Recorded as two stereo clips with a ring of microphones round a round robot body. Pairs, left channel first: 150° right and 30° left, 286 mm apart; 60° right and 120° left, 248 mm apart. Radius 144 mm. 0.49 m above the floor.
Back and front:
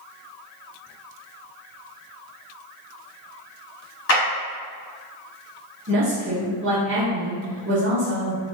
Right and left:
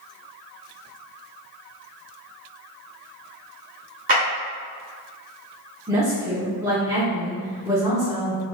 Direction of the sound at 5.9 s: 50° left.